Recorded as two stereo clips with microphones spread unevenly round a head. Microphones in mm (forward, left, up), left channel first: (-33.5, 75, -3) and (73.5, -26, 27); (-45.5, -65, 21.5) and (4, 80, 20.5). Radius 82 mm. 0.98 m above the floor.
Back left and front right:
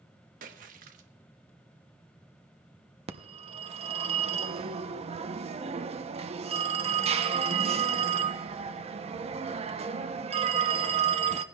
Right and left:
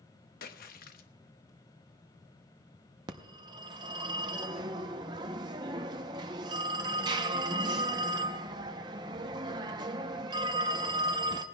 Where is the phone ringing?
5° left, 0.7 m.